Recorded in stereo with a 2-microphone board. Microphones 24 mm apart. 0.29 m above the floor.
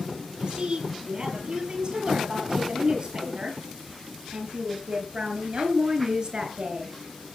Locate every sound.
0.4 s a woman speaking: 40° right (ahead or behind), 9 m